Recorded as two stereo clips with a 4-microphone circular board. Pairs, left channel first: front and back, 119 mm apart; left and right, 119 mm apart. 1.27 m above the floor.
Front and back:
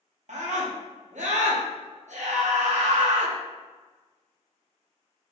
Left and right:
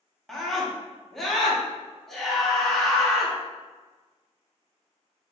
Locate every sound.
0.3 s a scream: 175° left, 1.1 m